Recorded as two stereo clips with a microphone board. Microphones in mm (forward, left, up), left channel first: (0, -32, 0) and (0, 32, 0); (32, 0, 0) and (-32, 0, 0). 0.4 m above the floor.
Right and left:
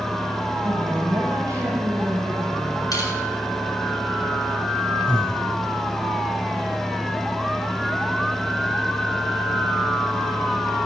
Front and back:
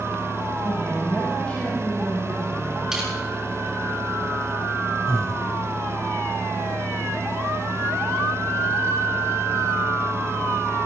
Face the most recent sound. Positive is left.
turn(degrees=-15)